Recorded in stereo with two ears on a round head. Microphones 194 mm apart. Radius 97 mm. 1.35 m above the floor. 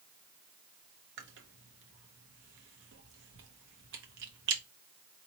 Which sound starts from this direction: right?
Chewing, at 1.2 s.